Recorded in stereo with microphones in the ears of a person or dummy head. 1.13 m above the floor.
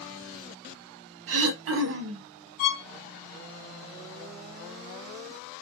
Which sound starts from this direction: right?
Throat clearing, at 1.3 s.